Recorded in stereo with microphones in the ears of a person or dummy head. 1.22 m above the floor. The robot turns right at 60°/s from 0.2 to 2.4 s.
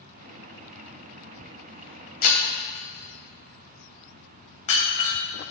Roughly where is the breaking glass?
Left.